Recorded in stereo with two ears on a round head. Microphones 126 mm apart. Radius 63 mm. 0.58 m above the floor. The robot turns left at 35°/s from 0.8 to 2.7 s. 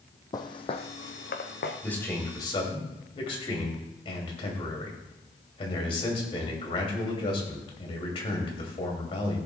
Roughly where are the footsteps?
Left.